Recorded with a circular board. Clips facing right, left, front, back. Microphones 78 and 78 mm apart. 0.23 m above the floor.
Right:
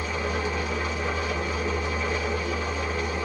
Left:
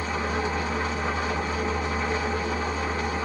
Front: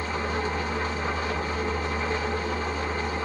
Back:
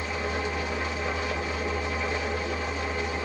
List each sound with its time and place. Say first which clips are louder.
0.0 s an engine running: left 1 dB, front 2 dB; 40° left, 1.4 m